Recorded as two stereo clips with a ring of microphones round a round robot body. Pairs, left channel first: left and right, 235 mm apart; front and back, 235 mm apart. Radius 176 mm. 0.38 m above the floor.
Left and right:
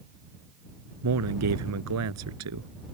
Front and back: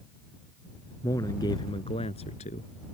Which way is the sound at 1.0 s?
80° right.